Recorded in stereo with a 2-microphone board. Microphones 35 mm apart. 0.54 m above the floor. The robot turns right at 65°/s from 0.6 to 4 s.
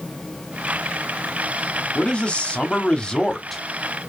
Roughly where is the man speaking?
Ahead left.